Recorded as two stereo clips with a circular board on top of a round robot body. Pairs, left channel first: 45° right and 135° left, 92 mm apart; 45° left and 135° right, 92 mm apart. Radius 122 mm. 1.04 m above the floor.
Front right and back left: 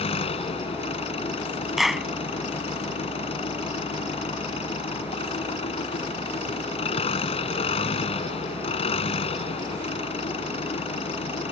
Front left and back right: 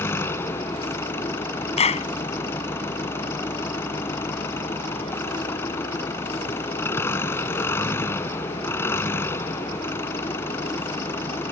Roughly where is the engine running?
Ahead right.